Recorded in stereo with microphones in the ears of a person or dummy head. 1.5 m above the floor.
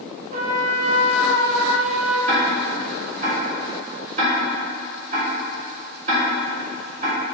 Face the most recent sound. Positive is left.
turn(degrees=-40)  # may be behind; listen again after turning